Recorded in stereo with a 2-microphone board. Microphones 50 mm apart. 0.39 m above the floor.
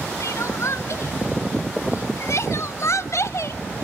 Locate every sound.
0.2 s crying: 70° left (ahead or behind), 0.5 m